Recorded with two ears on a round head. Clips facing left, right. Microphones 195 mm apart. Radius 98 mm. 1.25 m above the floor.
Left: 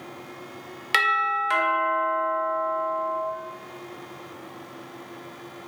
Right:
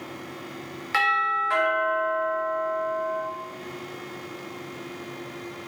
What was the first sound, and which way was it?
A doorbell, 45° left (ahead or behind).